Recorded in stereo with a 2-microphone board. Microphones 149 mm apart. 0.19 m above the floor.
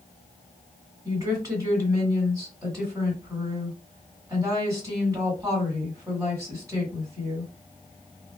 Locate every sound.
1.1 s a woman speaking: 25° right (ahead or behind), 1.7 m